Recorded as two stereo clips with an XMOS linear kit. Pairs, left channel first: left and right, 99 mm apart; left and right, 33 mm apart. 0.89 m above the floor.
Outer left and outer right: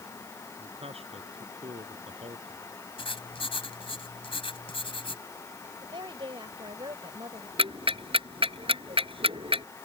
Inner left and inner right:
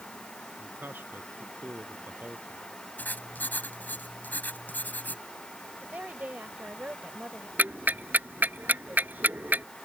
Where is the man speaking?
85° right.